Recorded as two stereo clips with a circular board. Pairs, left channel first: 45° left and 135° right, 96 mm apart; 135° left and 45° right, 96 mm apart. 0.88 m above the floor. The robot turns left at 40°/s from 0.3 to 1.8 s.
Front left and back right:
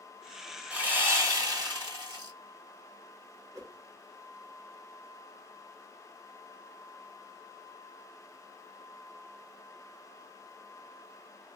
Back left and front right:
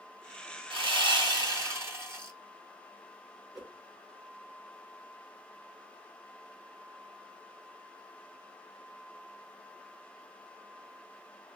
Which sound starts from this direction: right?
A whoosh, at 3.5 s.